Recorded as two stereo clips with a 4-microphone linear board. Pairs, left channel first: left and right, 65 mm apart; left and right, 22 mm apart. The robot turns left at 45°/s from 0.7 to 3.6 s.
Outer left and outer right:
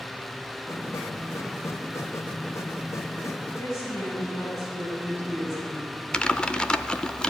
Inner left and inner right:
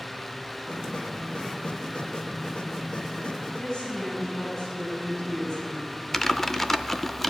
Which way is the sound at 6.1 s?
15° left (ahead or behind).